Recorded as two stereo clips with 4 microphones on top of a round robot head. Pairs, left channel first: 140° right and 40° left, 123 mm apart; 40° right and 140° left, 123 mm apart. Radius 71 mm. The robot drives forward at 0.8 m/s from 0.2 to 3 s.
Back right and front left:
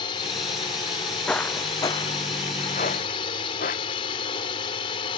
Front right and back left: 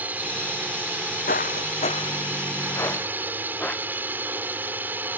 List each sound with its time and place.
0.0 s a drone: 150° right
1.3 s footsteps: 60° right; by 4.2 s 125° right